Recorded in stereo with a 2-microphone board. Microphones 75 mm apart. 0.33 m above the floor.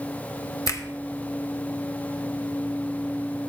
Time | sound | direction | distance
0.7 | a finger snap | 45° left (ahead or behind) | 0.9 m